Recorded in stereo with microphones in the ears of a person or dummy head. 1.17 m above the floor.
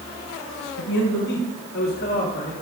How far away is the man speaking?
About 1.3 m.